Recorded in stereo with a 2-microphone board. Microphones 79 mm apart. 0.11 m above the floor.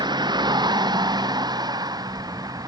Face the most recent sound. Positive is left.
turn(degrees=-55)  # may be behind; listen again after turning